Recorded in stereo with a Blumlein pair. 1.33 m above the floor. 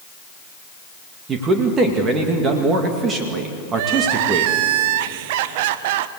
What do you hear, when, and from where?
1.3 s a man speaking: 25° right, 2 m
3.7 s crying: 50° right, 0.9 m